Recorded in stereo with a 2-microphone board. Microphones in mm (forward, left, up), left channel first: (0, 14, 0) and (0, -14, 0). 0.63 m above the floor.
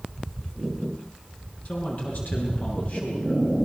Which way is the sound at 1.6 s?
55° left (ahead or behind).